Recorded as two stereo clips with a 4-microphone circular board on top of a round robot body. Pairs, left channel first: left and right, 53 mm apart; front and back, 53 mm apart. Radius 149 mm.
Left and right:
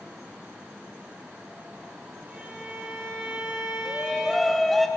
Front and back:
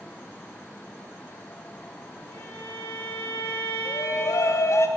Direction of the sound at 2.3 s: 30° right.